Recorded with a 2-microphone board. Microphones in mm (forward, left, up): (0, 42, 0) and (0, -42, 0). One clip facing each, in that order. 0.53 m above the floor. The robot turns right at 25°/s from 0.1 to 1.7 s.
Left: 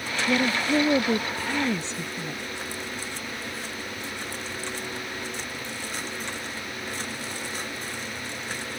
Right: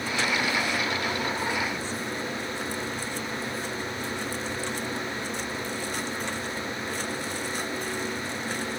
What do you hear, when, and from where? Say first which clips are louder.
0.3 s a woman speaking: left 7 dB; 65° left; by 2.4 s 105° left